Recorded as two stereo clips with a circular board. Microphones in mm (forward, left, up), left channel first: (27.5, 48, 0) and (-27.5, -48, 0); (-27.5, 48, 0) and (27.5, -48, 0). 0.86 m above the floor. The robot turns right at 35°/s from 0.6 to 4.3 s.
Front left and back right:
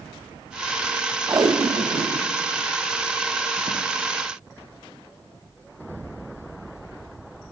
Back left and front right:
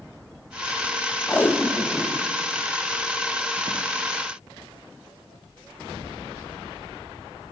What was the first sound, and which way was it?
Tape being pulled, 175° right.